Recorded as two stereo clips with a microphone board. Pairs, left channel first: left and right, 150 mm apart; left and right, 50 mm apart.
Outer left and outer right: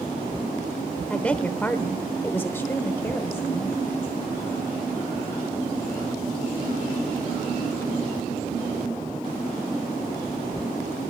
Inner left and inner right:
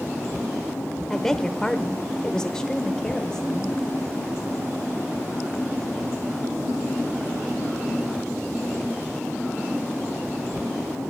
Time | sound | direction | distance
1.1 | a woman speaking | 10° left (ahead or behind) | 0.9 m